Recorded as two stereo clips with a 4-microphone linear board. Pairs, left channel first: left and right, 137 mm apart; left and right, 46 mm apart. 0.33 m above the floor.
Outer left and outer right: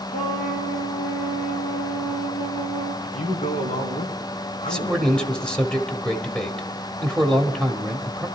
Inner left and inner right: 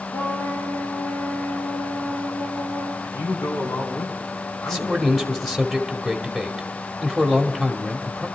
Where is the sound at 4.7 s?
5° left (ahead or behind), 1.3 m.